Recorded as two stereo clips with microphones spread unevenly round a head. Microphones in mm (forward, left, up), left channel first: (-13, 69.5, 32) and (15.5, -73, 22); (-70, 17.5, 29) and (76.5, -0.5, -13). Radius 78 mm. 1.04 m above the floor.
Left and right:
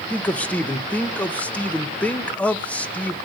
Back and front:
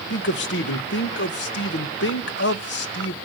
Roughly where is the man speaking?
Behind.